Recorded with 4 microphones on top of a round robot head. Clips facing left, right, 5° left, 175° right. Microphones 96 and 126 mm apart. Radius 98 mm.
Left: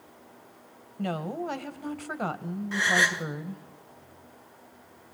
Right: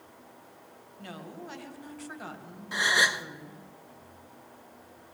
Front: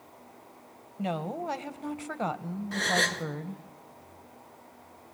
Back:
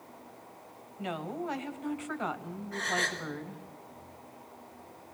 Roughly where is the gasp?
Ahead.